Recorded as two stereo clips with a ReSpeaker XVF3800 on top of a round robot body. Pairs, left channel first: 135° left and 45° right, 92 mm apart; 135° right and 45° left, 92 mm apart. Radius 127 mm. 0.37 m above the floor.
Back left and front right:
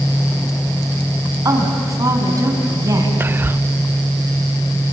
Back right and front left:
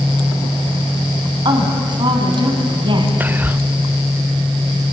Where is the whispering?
5° right, 0.9 m.